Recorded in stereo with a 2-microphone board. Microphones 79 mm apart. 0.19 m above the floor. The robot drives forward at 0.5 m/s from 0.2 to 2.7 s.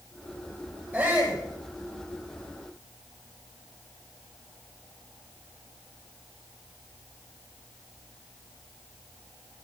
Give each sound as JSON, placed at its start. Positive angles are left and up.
{"t": 0.9, "sound": "a shout", "side_deg": -30, "distance_m": 6.0}